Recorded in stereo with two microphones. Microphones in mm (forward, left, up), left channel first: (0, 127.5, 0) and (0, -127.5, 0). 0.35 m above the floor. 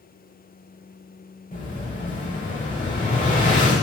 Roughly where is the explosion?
Left.